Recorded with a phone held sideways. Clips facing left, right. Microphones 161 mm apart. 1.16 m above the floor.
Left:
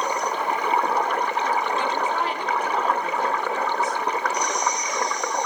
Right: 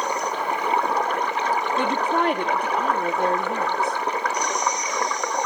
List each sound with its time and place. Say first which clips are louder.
1.8 s a woman speaking: right 2 dB; 60° right (ahead or behind), 2.5 m